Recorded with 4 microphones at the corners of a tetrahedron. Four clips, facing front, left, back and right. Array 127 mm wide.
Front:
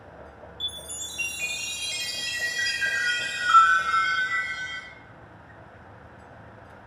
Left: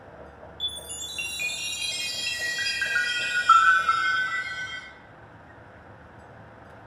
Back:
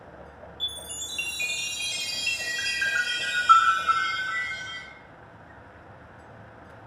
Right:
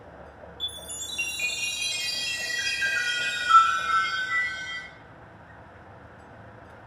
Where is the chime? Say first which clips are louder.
Left 1 dB, even; 115° left, 0.9 m.